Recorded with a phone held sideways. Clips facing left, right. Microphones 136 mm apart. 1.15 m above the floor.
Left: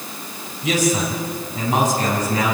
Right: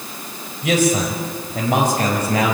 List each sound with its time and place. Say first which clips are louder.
0.6 s a man speaking: right 2 dB; 60° right (ahead or behind), 4.5 m; by 2.5 s 75° right (ahead or behind), 5.5 m